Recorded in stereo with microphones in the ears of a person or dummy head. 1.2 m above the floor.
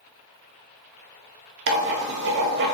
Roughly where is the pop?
No pop in this recording.